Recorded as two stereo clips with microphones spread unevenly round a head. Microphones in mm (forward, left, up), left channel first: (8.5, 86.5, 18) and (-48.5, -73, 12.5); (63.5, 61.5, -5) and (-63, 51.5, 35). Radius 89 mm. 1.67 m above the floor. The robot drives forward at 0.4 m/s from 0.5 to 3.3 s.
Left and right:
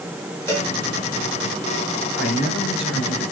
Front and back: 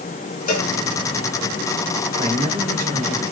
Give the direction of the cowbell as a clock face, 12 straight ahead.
12 o'clock.